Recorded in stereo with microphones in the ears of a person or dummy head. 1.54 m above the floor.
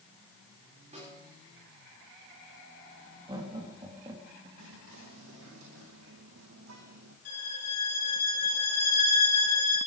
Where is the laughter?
20° right (ahead or behind), 3.5 m.